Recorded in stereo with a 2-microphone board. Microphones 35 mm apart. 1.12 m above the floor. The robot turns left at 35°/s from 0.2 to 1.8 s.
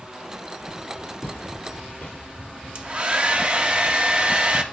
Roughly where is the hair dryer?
Right.